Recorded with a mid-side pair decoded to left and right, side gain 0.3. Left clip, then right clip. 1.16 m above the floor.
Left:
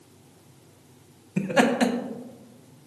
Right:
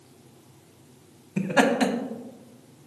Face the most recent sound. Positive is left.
turn(degrees=10)